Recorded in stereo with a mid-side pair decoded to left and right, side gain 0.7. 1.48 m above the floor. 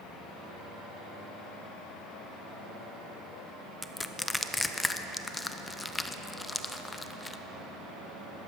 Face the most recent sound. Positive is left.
turn(degrees=10)